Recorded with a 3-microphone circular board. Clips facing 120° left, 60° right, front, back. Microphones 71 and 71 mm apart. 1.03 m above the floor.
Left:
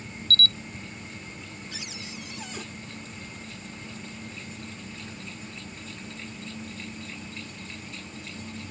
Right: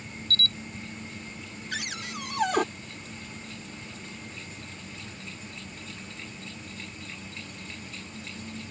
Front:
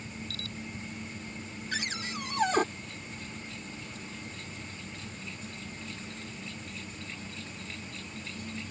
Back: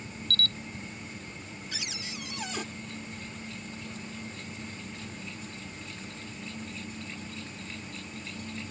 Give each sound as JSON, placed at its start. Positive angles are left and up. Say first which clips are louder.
{"t": 0.3, "sound": "a camera shutter", "louder": "left 4 dB, back 7 dB", "azimuth_deg": 80}
{"t": 1.7, "sound": "a cupboard door", "louder": "right 8 dB, front 7 dB", "azimuth_deg": -40}